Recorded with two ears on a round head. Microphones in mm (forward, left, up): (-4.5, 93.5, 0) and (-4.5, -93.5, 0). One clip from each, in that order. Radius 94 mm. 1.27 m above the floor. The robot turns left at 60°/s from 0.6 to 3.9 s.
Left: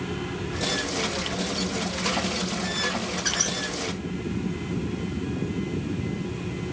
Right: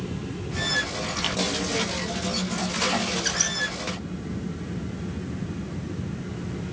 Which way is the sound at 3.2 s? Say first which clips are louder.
Even; 5° left (ahead or behind).